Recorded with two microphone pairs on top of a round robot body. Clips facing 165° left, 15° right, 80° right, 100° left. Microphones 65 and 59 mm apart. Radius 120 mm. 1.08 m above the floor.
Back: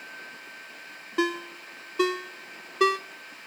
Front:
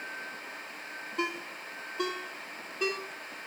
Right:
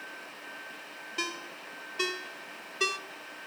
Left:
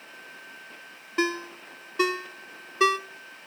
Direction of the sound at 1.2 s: 155° left.